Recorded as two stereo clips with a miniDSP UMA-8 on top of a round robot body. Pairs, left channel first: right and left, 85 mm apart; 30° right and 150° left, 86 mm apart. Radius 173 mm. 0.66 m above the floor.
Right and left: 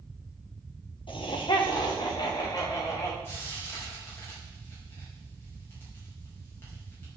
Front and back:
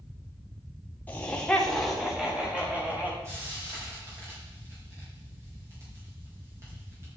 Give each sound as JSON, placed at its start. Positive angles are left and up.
{"t": 1.1, "sound": "laughter", "azimuth_deg": -100, "distance_m": 2.5}
{"t": 3.2, "sound": "frying", "azimuth_deg": -150, "distance_m": 6.0}